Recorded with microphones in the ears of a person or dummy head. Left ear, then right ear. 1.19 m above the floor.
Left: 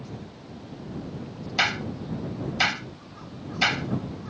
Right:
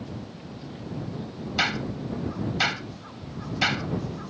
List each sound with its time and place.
1.6 s a clap: 20° left (ahead or behind)